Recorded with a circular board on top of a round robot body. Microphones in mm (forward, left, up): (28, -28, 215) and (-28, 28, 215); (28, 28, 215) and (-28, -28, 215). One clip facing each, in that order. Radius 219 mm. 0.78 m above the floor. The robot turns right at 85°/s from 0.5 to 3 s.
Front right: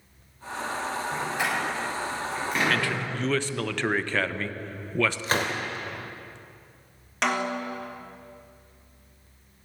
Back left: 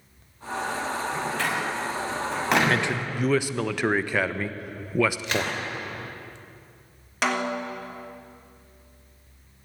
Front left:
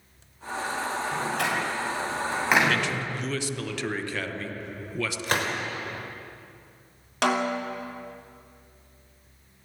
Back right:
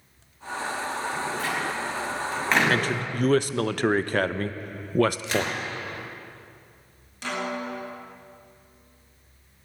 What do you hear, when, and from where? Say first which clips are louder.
1.1 s a door slam: front right 1 dB, front left 3 dB; 5° left, 6.5 m; by 3.0 s 160° left, 6.5 m
2.7 s a man speaking: back left 2 dB, back right 2 dB; 175° right, 1.3 m; by 5.5 s 150° right, 1.3 m
5.2 s a gunshot: front right 1 dB, back right 1 dB; 5° left, 3.5 m
7.2 s a snare drum: back left 1 dB, front left 5 dB; 45° left, 3 m